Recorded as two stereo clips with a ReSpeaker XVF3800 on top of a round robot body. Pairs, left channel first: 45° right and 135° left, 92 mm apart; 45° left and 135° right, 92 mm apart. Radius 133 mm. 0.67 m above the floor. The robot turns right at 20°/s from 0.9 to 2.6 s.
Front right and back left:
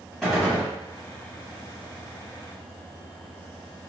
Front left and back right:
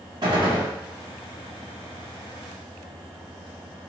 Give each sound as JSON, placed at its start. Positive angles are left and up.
{"t": 0.2, "sound": "a gunshot", "azimuth_deg": -135, "distance_m": 1.7}